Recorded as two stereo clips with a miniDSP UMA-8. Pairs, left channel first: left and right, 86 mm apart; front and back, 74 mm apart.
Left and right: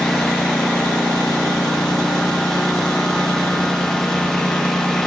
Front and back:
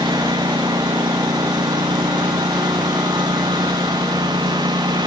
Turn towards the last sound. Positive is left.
turn(degrees=175)